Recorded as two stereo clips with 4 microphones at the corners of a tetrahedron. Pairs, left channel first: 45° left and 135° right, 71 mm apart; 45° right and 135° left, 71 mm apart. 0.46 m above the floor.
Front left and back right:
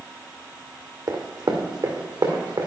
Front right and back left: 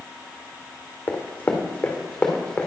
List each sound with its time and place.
1.1 s running footsteps: 105° right, 1.7 m; by 2.7 s 120° right, 2.5 m